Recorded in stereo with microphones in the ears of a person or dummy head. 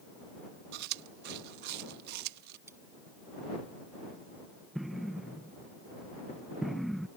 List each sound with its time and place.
0.7 s chewing: 60° right (ahead or behind)
2.7 s cutlery clinking: 15° right (ahead or behind)
4.8 s an explosion: centre (ahead or behind)